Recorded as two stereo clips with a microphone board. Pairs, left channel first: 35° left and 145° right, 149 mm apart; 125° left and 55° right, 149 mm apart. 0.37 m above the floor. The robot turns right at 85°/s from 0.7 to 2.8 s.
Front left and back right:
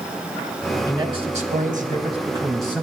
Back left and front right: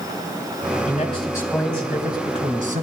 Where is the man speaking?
155° left, 3 m; by 2.8 s 40° right, 3 m.